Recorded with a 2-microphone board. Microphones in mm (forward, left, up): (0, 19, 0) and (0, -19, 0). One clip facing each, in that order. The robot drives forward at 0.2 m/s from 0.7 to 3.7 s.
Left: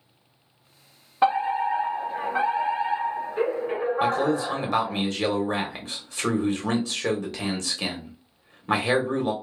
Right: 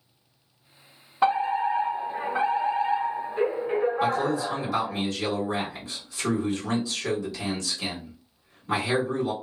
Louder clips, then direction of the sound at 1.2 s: Left 1 dB; 20° left (ahead or behind).